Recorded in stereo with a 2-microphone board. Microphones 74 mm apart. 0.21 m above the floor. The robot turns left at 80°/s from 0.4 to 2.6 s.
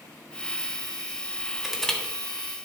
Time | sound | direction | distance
1.6 | crushing | 5° right (ahead or behind) | 1.8 m